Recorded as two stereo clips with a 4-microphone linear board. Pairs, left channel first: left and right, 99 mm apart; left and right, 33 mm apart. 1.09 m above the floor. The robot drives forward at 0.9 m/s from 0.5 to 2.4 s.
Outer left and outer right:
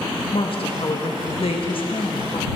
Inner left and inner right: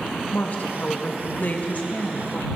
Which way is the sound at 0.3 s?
65° left (ahead or behind).